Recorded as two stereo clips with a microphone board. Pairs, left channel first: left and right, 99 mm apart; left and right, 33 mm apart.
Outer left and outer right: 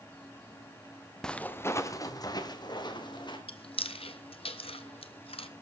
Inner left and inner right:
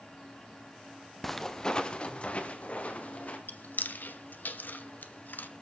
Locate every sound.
1.2 s footsteps: 10° left (ahead or behind), 0.8 m; by 3.4 s 55° left (ahead or behind), 2.5 m
3.5 s chewing: 75° left (ahead or behind), 0.8 m